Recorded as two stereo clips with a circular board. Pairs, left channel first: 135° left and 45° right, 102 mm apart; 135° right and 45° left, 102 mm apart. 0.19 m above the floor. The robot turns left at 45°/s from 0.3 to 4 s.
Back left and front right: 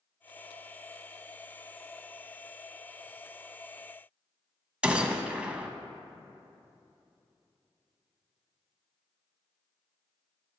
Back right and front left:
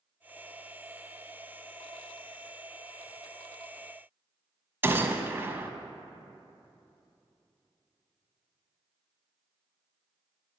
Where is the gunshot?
15° left, 0.5 m.